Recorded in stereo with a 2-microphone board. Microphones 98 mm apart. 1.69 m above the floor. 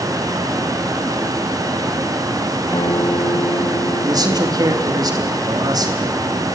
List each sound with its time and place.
2.7 s a guitar: 40° left (ahead or behind), 1.9 m
4.0 s a man speaking: 40° right (ahead or behind), 3 m